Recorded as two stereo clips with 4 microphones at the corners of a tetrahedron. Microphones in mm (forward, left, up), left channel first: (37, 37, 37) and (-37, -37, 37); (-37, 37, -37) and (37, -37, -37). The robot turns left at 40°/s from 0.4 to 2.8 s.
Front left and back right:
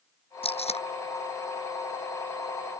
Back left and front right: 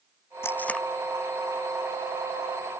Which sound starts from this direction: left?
Tape being pulled, at 0.4 s.